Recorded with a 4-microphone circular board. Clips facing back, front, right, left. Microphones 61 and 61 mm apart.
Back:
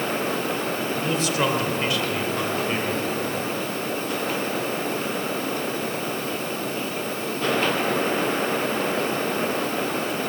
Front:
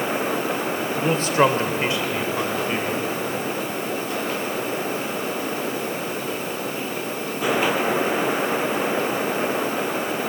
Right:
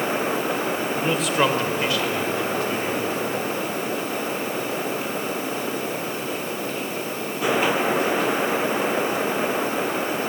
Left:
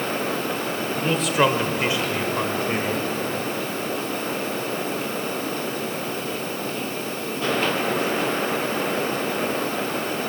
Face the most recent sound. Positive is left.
turn(degrees=90)